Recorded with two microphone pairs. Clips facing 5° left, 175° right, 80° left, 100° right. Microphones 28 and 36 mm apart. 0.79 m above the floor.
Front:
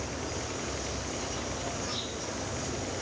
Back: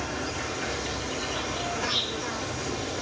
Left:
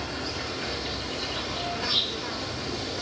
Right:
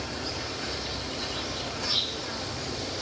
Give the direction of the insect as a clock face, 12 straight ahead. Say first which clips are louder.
Back 5 dB, left 2 dB; 7 o'clock.